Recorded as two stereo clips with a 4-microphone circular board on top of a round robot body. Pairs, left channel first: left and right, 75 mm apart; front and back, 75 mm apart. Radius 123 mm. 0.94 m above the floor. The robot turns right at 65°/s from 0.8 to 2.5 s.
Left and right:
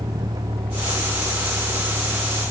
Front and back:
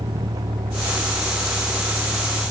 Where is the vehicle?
140° right; by 2.5 s 20° right.